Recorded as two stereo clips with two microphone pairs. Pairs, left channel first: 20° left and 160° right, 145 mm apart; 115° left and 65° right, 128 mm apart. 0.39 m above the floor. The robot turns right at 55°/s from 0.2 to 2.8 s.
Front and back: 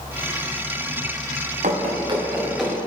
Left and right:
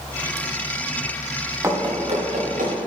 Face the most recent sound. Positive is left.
turn(degrees=-60)